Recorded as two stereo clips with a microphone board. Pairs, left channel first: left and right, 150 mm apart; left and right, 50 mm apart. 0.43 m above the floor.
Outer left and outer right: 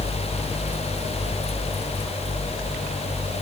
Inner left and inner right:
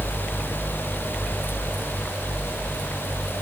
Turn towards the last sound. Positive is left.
No sound to turn to.